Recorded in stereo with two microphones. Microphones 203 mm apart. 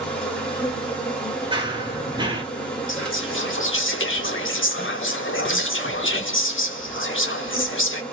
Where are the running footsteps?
25° right (ahead or behind), 1.4 m.